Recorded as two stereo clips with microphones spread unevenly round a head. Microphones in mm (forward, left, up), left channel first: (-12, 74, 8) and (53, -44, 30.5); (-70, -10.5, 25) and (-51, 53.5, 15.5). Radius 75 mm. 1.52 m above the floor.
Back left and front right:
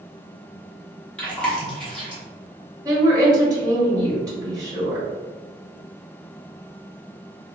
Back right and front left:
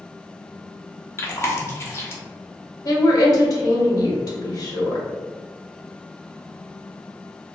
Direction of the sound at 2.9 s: 130° right.